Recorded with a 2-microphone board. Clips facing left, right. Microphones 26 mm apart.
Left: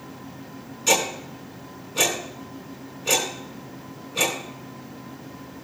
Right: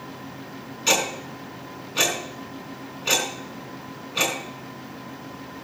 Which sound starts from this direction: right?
Ticking, at 0.9 s.